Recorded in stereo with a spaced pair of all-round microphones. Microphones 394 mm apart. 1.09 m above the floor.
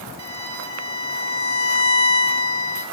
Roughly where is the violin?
Right.